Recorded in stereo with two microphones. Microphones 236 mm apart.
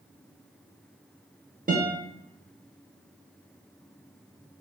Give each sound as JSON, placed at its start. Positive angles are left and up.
{"t": 1.7, "sound": "a guitar", "side_deg": -40, "distance_m": 0.6}